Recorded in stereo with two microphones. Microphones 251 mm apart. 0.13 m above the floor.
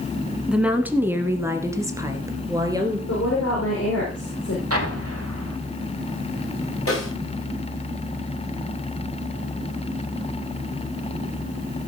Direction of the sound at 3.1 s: 70° left (ahead or behind).